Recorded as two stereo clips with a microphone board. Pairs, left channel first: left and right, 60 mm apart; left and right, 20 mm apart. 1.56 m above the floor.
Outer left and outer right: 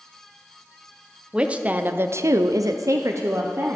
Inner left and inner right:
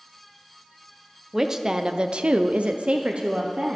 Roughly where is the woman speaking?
Centre.